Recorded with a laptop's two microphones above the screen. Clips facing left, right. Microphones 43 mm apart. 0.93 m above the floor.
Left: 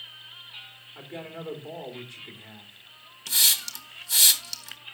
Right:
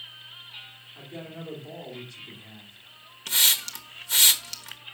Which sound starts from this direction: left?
A man speaking, at 0.9 s.